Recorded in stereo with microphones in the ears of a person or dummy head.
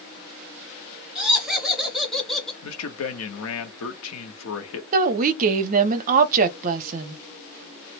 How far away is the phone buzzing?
No phone buzzing in this recording.